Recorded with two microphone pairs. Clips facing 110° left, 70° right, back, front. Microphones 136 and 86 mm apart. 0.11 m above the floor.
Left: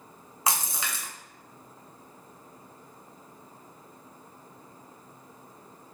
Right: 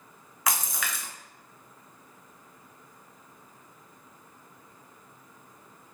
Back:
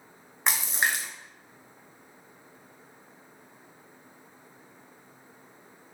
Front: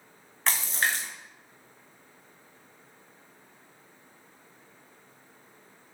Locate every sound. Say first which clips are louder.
0.5 s a splash: left 1 dB, back 1 dB; 120° left, 0.6 m